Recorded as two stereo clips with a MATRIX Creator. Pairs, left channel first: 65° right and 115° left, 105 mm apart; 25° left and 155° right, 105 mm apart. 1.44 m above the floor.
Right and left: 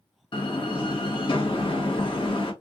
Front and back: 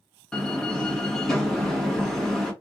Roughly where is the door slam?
Ahead right.